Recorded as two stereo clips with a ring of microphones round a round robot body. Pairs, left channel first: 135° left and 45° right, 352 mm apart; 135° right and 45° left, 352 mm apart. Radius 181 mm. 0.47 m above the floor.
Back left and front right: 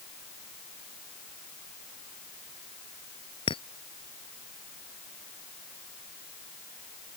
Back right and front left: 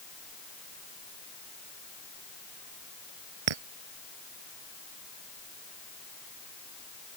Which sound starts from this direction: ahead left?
A clink, at 3.5 s.